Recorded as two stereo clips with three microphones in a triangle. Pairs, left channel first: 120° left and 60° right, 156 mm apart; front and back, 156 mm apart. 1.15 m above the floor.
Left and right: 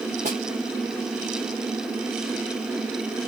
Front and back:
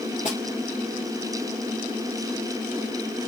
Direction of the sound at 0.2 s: 35° right.